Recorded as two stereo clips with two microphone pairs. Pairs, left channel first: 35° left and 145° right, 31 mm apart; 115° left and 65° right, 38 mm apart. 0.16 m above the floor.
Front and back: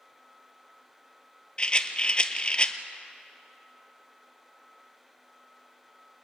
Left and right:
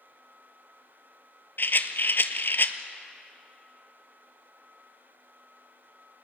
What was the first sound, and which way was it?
A rattle, 90° left.